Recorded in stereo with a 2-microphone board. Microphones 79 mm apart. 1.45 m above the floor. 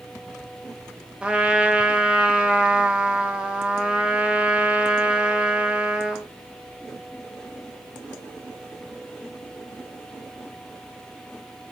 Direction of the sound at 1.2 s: 15° right (ahead or behind).